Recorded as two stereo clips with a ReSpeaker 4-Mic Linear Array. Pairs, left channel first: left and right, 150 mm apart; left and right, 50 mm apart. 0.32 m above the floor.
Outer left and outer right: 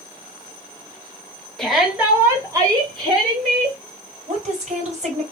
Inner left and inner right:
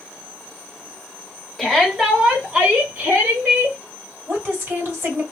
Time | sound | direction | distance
1.6 | a shout | 5° left (ahead or behind) | 1.3 m
4.3 | a woman speaking | 50° right (ahead or behind) | 2 m